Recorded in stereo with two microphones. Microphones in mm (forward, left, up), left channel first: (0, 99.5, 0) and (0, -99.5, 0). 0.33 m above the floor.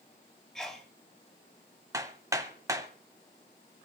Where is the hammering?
15° right (ahead or behind), 1.5 m.